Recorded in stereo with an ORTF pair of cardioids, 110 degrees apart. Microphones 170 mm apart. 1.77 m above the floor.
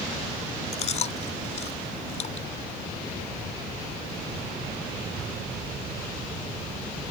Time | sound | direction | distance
0.7 | chewing | 45° left | ?